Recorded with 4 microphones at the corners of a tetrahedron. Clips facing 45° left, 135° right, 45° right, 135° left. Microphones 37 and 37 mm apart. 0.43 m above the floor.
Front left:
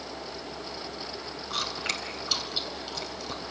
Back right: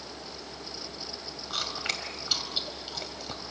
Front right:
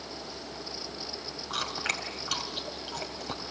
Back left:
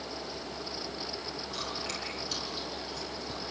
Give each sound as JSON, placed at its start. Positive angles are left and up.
{"t": 1.5, "sound": "chewing", "azimuth_deg": -50, "distance_m": 3.0}